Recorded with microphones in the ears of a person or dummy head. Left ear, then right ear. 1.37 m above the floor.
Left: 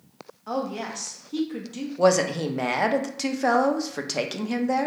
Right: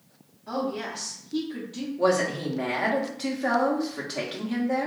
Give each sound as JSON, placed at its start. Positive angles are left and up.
{"t": 0.5, "sound": "a woman speaking", "side_deg": 40, "distance_m": 0.7}
{"t": 2.0, "sound": "a woman speaking", "side_deg": 75, "distance_m": 0.5}